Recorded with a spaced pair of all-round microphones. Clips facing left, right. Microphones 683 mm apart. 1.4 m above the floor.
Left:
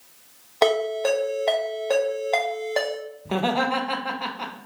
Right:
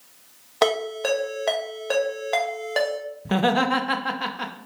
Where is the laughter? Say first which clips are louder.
Right 3 dB; 50° right (ahead or behind), 0.6 m.